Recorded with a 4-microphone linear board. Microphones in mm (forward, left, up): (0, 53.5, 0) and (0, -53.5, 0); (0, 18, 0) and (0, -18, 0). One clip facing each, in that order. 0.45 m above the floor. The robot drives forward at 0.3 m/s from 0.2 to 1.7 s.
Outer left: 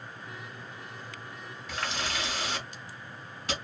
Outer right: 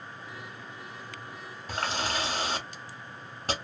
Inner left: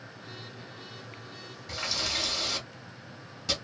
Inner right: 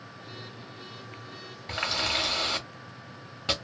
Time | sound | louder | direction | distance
1.7 | a running tap | outer right 3 dB, inner right 4 dB | 45° right (ahead or behind) | 0.8 m